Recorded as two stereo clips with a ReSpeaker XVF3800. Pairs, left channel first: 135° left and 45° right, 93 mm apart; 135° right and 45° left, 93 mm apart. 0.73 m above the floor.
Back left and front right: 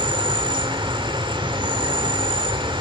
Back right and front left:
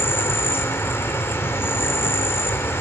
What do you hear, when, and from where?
0.0 s an insect: 70° right, 2.5 m